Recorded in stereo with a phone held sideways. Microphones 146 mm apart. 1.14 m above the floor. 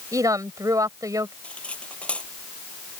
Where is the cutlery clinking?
10° left (ahead or behind).